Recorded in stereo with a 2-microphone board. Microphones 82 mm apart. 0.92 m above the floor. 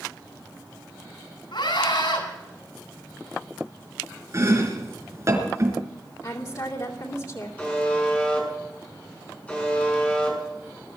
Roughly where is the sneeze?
I don't hear a sneeze.